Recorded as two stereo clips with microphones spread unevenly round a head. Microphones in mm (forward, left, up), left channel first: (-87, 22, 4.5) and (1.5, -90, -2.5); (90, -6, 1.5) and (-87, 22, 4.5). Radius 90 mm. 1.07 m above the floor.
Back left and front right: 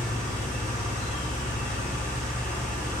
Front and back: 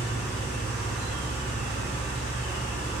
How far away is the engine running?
About 1.2 m.